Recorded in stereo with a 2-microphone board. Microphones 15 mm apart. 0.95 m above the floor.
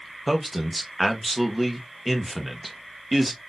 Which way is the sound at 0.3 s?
10° right (ahead or behind).